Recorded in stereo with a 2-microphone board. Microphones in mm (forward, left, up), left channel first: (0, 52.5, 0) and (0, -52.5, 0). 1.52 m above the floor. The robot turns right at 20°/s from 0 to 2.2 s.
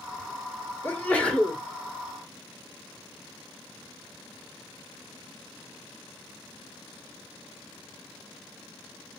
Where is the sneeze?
20° left (ahead or behind), 2.5 m; by 1.6 s 5° left (ahead or behind), 2.5 m.